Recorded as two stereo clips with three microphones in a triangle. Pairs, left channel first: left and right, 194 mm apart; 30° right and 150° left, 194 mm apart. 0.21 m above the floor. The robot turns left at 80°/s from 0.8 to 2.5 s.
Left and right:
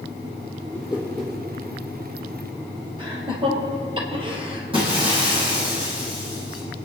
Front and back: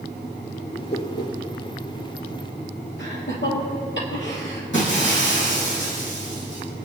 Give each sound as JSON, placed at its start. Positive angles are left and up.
{"t": 0.7, "sound": "a whoosh", "azimuth_deg": 35, "distance_m": 4.0}
{"t": 3.0, "sound": "laughter", "azimuth_deg": -25, "distance_m": 4.5}
{"t": 4.7, "sound": "breaking glass", "azimuth_deg": -25, "distance_m": 6.0}